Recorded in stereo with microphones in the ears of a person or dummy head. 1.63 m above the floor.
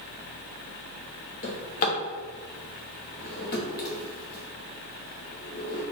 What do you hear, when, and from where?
1.4 s a drawer: 45° left (ahead or behind), 1.3 m